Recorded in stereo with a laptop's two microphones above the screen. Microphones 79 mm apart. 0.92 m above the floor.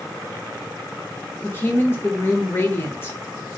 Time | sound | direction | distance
1.4 | a woman speaking | 30° left (ahead or behind) | 0.9 m